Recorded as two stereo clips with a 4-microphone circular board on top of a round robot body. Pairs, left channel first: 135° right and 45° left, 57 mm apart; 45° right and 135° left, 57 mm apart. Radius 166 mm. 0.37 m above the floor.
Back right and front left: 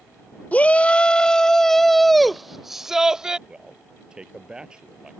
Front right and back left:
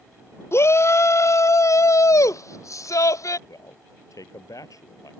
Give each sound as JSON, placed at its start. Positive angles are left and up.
{"t": 0.5, "sound": "a shout", "azimuth_deg": -75}
{"t": 3.5, "sound": "a man speaking", "azimuth_deg": -30}